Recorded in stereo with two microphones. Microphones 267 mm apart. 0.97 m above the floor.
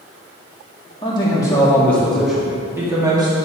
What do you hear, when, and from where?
1.0 s a man speaking: 20° left (ahead or behind), 2 m; by 3.4 s 20° right (ahead or behind), 2 m